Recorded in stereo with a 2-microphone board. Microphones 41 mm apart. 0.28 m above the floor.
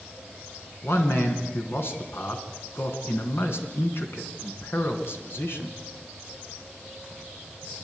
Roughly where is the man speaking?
Left.